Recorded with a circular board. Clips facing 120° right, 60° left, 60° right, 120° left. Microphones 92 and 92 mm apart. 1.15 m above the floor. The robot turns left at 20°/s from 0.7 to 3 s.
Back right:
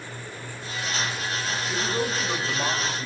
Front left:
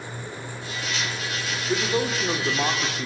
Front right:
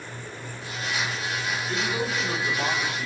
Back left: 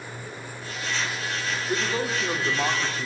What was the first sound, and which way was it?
A man speaking, 70° left.